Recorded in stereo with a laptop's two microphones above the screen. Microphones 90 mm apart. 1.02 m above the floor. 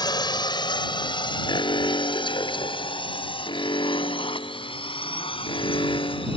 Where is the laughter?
I don't hear laughter.